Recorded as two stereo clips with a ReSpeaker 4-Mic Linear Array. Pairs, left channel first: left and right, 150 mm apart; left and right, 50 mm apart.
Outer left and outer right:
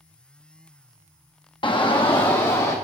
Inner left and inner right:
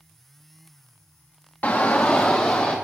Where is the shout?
35° left (ahead or behind), 0.7 m; by 2.8 s 30° left (ahead or behind), 1.5 m.